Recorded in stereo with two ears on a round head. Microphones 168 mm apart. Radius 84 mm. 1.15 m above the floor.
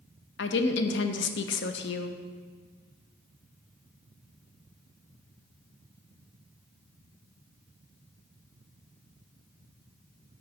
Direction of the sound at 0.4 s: 65° left (ahead or behind).